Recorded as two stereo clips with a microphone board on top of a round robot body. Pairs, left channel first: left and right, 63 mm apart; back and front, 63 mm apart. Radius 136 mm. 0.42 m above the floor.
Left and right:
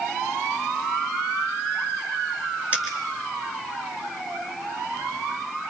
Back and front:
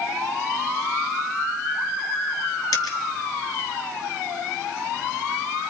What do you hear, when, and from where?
2.7 s a dropped coin: 155° right, 4 m